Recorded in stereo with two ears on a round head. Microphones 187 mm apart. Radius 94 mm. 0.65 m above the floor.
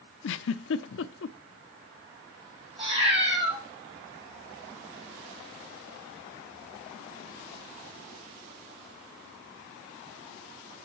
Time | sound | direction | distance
0.2 | a giggle | 65° left (ahead or behind) | 0.5 m
2.8 | a cat meowing | 30° right (ahead or behind) | 2 m